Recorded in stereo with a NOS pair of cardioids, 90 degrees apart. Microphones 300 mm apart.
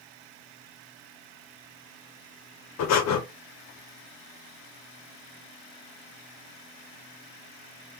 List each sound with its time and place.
2.8 s breathing: 65° left, 0.9 m